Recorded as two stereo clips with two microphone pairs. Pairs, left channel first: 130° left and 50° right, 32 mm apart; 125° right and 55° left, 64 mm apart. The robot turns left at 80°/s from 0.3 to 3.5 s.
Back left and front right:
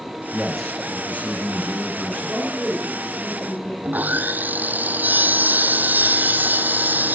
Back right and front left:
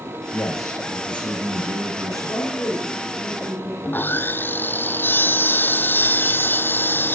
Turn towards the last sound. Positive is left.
turn(degrees=-70)